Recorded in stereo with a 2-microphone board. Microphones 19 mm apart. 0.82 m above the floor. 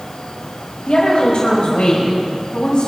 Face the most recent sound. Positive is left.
turn(degrees=75)  # may be behind; listen again after turning